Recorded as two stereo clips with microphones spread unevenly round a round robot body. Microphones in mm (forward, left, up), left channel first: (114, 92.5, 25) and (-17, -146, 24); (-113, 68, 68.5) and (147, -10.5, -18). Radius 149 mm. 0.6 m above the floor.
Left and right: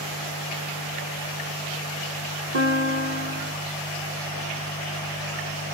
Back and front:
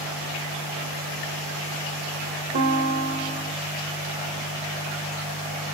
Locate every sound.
2.5 s a guitar: 70° right, 6 m